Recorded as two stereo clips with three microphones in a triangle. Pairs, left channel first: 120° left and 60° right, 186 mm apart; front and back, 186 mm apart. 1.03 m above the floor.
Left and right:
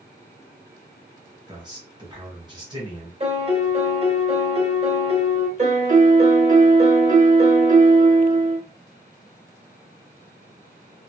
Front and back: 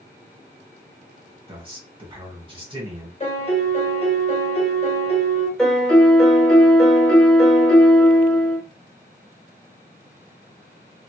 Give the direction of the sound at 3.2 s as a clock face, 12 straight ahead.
1 o'clock.